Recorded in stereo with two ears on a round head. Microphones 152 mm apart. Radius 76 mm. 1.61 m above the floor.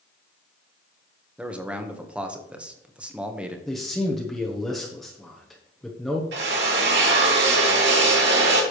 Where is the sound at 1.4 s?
5° right (ahead or behind), 1.4 m.